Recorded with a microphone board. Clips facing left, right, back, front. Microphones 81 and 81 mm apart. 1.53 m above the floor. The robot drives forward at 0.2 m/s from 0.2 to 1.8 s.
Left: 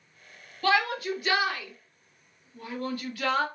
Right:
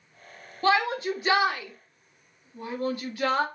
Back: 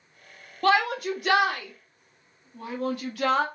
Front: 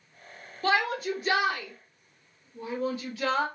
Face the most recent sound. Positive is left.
turn(degrees=-160)